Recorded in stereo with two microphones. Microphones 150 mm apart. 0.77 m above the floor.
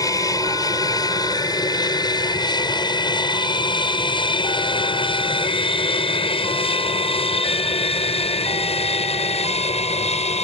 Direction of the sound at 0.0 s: 25° left (ahead or behind).